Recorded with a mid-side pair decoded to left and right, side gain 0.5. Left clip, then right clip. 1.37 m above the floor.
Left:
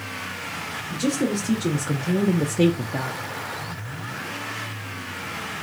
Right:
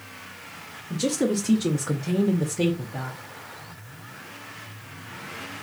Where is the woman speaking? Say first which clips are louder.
Right 1 dB; 25° right, 1.0 m; by 3.2 s 65° left, 0.6 m.